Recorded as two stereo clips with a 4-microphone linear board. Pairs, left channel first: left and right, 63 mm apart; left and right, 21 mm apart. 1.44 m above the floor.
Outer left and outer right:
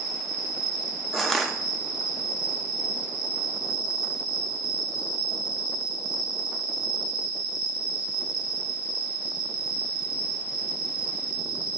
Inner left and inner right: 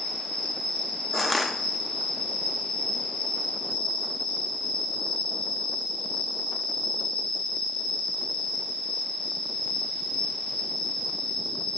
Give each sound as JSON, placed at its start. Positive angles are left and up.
{"t": 0.0, "sound": "an insect", "side_deg": 70, "distance_m": 2.5}
{"t": 1.1, "sound": "crushing", "side_deg": 5, "distance_m": 0.7}